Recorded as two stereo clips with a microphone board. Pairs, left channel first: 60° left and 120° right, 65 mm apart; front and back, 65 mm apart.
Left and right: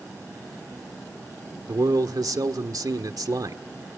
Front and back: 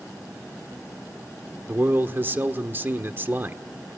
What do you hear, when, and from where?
1.7 s a man speaking: 125° right, 1.4 m